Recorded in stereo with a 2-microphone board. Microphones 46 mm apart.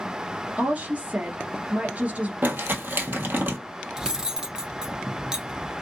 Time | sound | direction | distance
0.6 | a woman speaking | 35° right (ahead or behind) | 1.6 m
2.4 | crumpling | 45° right (ahead or behind) | 1.2 m
4.0 | cutlery clinking | 15° right (ahead or behind) | 0.8 m